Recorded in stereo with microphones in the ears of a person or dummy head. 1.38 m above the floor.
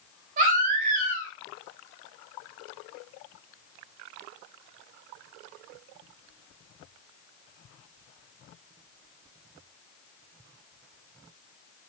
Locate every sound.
0.4 s a baby crying: 50° right (ahead or behind), 1.2 m